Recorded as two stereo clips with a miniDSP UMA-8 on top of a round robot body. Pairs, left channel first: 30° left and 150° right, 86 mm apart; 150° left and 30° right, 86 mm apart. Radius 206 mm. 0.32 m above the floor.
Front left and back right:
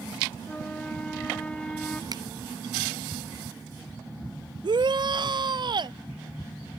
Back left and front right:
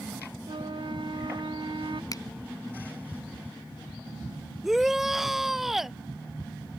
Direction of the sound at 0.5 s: 45° right.